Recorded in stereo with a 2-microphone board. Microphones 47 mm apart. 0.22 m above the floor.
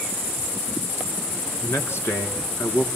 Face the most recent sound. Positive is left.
turn(degrees=60)  # may be behind; listen again after turning